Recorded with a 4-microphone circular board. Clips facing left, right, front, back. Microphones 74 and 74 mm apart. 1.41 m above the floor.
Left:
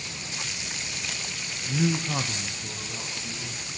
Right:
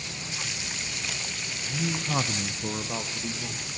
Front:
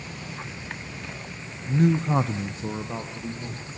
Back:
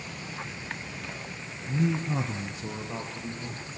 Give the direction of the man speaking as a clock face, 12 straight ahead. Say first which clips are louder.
Left 4 dB, front 6 dB; 10 o'clock.